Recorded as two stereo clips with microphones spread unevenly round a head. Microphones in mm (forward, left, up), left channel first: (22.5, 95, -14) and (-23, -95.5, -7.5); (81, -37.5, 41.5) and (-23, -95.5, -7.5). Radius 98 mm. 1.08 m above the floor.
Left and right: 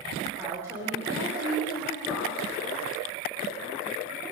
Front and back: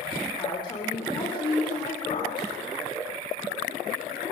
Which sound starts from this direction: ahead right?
A woman speaking, at 0.4 s.